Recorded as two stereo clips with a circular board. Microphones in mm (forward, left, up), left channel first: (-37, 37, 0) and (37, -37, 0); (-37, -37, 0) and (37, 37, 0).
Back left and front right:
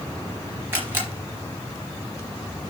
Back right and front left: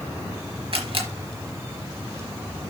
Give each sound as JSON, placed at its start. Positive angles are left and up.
{"t": 0.7, "sound": "a camera shutter", "azimuth_deg": 25, "distance_m": 3.5}